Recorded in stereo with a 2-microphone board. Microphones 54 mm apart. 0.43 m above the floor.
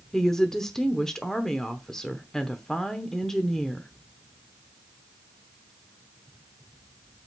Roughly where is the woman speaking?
Centre.